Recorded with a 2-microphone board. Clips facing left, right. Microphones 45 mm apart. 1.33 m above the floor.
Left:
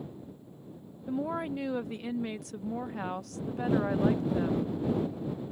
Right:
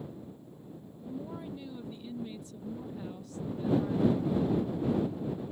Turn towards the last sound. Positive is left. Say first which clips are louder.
# left 8 dB
turn(degrees=70)  # may be behind; listen again after turning